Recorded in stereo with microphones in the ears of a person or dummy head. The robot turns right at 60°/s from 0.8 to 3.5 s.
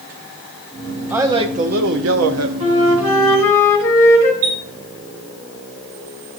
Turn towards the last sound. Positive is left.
turn(degrees=-45)  # may be behind; listen again after turning